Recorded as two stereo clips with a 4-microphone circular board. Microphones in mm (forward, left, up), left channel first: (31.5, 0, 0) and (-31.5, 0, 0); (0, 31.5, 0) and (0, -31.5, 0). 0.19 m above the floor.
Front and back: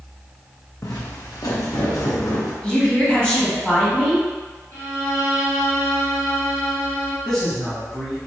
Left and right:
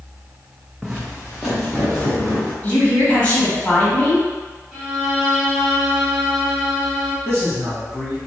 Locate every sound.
0.8 s footsteps: 10° right, 0.6 m; by 2.5 s straight ahead, 2.0 m
2.6 s a woman speaking: 45° left, 1.4 m
4.7 s a violin: 5° right, 1.5 m
7.2 s a man speaking: 70° right, 1.4 m